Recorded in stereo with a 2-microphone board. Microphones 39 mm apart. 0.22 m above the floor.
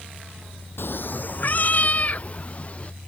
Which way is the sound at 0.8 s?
70° left (ahead or behind).